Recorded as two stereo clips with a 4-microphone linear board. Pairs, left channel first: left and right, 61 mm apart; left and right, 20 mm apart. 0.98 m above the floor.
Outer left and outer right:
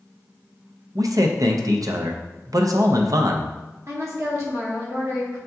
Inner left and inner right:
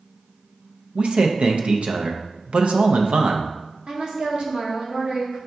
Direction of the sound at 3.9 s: 55° right (ahead or behind).